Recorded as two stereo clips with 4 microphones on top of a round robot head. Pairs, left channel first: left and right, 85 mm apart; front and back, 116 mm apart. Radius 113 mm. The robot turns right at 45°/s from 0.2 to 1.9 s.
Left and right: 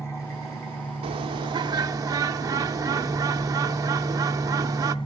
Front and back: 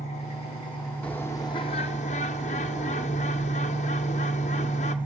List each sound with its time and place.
0.0 s an engine running: 35° left, 5.5 m; by 5.0 s 110° left, 5.5 m
1.0 s a bird: 80° right, 0.6 m; by 5.0 s 40° right, 0.6 m